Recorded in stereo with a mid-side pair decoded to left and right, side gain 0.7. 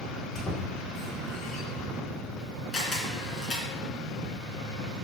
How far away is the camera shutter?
About 3 m.